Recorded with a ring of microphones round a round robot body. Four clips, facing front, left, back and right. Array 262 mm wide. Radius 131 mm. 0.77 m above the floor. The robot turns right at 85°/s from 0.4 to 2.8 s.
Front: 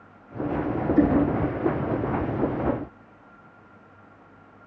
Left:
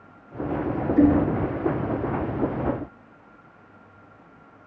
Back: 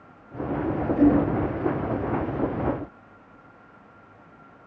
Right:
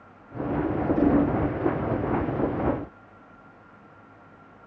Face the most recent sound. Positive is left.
turn(degrees=150)